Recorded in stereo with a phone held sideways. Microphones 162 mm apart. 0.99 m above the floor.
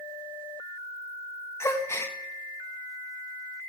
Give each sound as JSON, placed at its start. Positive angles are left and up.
{"t": 1.6, "sound": "a gasp", "side_deg": 15, "distance_m": 0.8}